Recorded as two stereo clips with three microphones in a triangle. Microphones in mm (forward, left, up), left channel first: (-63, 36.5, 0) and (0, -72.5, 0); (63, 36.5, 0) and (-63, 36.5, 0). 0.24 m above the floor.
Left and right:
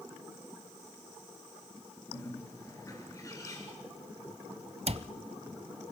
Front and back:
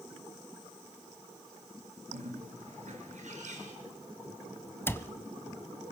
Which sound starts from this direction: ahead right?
A cupboard door, at 4.9 s.